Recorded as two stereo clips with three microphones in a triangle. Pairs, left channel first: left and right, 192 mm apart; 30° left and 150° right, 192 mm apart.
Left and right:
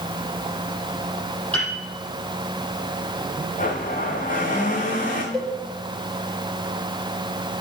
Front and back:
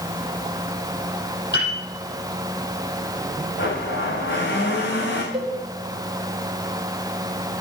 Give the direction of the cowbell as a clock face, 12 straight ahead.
6 o'clock.